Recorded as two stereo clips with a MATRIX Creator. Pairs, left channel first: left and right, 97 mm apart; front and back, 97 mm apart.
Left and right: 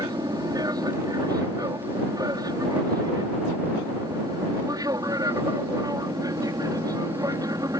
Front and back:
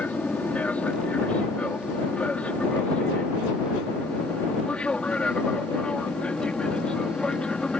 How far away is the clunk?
No clunk in this recording.